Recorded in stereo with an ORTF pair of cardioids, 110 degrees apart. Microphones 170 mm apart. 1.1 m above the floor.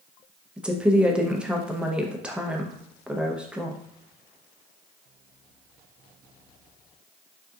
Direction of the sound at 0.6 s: 5° right.